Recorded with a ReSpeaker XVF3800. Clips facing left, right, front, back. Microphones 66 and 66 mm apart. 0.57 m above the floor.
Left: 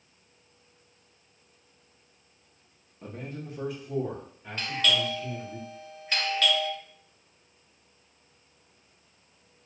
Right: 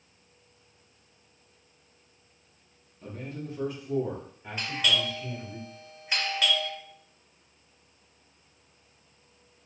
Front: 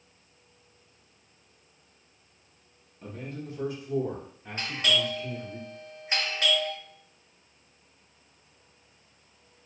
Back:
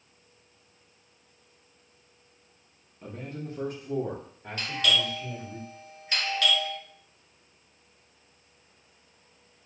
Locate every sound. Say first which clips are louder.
3.0 s a man speaking: right 1 dB, even; 110° left, 0.8 m; by 5.6 s 150° right, 2.5 m
4.6 s a doorbell: left 1 dB, even; 25° right, 1.3 m